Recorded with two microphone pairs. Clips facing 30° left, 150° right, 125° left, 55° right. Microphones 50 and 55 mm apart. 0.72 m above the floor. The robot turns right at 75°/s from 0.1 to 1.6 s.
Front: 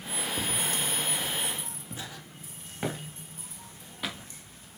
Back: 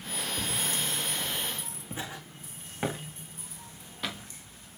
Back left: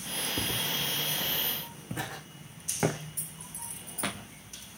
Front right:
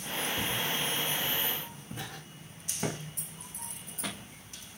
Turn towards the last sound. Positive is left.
turn(degrees=115)